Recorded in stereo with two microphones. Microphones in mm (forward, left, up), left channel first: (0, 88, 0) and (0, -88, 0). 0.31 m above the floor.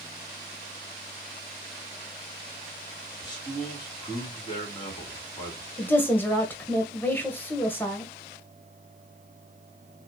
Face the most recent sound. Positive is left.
turn(degrees=10)  # may be behind; listen again after turning